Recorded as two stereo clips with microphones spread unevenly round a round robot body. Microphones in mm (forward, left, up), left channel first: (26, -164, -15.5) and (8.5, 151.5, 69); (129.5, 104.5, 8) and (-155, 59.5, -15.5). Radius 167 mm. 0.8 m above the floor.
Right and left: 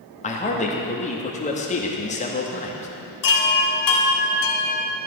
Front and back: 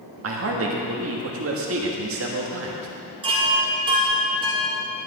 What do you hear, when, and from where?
0.2 s a man speaking: 140° right, 1.2 m
3.2 s a chime: 95° right, 1.7 m